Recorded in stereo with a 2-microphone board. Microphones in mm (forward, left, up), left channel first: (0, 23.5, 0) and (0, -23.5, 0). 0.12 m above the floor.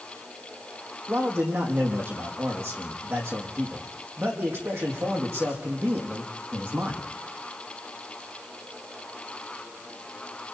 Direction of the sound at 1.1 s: 60° right (ahead or behind).